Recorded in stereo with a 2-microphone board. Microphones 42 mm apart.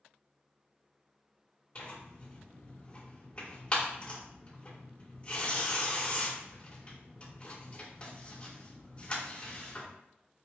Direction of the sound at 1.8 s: 30° left (ahead or behind).